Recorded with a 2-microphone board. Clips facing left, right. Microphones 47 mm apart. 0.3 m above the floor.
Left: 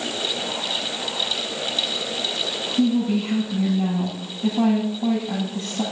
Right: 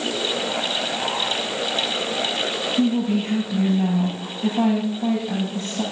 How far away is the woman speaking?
About 7.5 m.